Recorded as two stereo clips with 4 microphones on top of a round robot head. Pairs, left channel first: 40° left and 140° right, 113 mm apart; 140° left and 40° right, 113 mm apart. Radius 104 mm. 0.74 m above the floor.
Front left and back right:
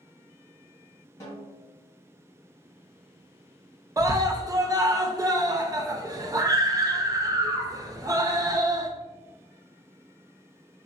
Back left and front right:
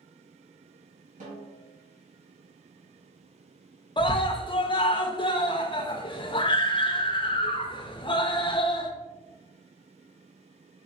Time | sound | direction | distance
1.2 | a snare drum | 30° right | 1.7 m
4.0 | a scream | 170° left | 0.6 m